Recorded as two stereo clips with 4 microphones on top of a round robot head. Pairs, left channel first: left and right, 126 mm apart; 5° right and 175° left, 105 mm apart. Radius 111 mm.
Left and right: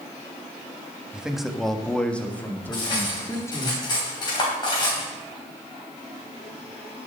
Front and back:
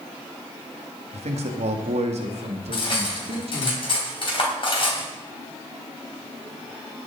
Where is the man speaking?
175° right, 1.3 m; by 3.7 s 155° left, 2.5 m.